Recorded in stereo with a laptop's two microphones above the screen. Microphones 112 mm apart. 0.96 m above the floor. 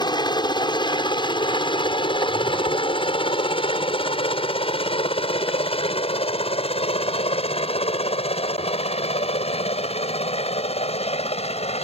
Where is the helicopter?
45° left (ahead or behind); by 11.8 s 75° left (ahead or behind).